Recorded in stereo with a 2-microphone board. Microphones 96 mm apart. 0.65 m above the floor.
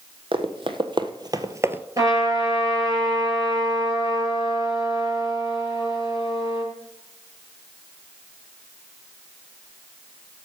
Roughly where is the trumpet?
Right.